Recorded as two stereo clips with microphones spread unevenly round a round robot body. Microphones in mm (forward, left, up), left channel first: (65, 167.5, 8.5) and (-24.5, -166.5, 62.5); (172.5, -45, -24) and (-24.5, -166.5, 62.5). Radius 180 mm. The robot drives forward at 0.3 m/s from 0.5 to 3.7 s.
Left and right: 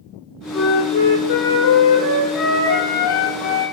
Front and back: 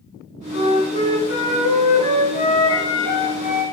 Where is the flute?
75° left, 1.7 m; by 3.6 s 105° left, 1.7 m.